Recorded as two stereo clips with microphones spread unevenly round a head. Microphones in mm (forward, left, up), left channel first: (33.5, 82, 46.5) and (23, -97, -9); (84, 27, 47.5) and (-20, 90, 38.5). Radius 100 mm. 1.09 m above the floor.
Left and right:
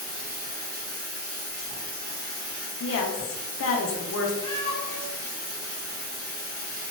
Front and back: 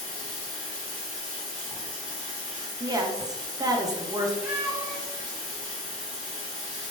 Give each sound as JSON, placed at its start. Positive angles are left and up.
{"t": 0.0, "sound": "running water", "azimuth_deg": -60, "distance_m": 1.4}
{"t": 2.8, "sound": "a woman speaking", "azimuth_deg": 95, "distance_m": 0.6}
{"t": 4.4, "sound": "a cat meowing", "azimuth_deg": 90, "distance_m": 1.0}